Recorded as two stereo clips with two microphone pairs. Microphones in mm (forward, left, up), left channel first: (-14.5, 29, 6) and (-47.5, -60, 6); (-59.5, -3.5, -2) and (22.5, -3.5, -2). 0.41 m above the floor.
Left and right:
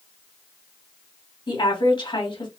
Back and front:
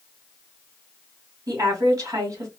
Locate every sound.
1.5 s a woman speaking: 40° left, 2 m